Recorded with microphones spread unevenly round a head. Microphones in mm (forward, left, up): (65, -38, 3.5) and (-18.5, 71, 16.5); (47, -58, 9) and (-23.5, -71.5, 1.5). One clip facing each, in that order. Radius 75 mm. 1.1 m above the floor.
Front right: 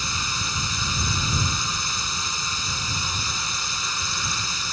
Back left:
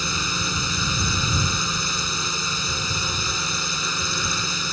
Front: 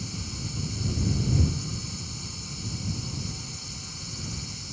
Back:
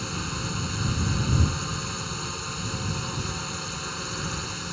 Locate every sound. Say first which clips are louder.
0.0 s a drone: back left 3 dB, back 6 dB; 125° left